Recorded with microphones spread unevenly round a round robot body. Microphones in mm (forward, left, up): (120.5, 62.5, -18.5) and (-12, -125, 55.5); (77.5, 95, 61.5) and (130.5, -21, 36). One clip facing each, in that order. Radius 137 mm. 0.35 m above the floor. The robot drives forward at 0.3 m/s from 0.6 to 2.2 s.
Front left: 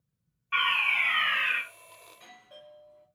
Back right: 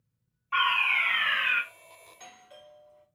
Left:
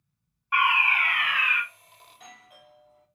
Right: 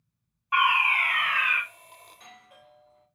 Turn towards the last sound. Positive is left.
turn(degrees=-155)